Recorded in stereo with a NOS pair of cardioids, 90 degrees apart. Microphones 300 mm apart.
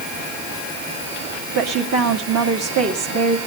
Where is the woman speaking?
60° right, 2 m.